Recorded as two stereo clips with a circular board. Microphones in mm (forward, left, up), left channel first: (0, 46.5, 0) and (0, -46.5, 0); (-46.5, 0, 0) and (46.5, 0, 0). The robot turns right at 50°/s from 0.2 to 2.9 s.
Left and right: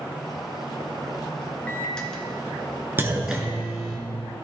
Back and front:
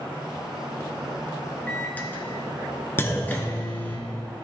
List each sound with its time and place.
1.7 s a microwave: 140° left, 0.9 m; by 4.0 s 160° right, 0.9 m
3.0 s a clunk: 135° right, 0.7 m